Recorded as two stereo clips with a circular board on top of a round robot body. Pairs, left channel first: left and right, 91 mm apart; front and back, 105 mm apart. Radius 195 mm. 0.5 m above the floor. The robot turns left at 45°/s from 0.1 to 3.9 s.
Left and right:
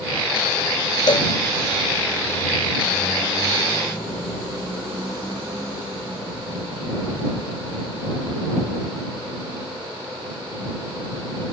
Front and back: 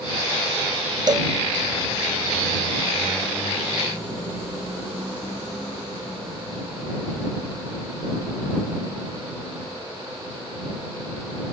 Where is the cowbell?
130° left; by 1.3 s 120° left.